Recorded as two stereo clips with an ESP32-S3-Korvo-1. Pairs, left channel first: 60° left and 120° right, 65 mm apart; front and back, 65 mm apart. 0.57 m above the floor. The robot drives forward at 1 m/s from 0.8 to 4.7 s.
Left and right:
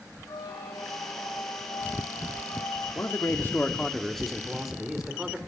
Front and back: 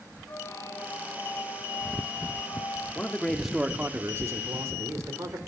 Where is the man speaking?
50° left, 1.0 m; by 5.4 s 155° left, 1.5 m.